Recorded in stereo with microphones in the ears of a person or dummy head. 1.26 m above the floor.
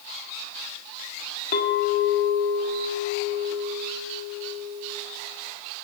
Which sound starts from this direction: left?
A clink, at 1.5 s.